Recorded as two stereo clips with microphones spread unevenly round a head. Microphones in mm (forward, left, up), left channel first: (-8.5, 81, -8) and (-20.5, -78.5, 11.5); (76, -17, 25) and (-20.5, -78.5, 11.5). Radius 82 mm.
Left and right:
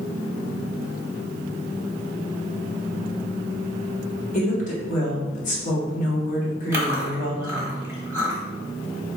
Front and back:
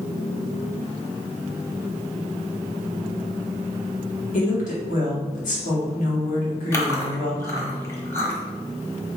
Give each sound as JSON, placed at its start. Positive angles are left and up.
{"t": 4.3, "sound": "a woman speaking", "azimuth_deg": 40, "distance_m": 1.7}
{"t": 6.7, "sound": "chewing", "azimuth_deg": -25, "distance_m": 1.2}